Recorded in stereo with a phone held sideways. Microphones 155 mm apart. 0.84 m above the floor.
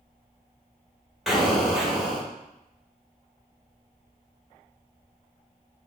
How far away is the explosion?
About 1.0 m.